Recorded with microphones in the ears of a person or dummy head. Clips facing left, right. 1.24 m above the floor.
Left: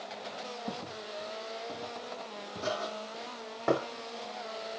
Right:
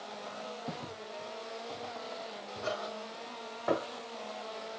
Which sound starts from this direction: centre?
Footsteps, at 0.7 s.